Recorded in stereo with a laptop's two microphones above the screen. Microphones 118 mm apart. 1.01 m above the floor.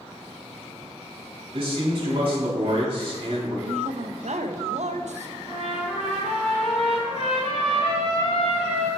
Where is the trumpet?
60° left (ahead or behind), 2.5 m.